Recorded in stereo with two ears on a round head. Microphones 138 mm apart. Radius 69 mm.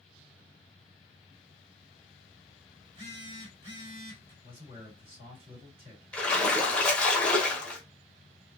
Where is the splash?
5° left (ahead or behind), 0.8 m.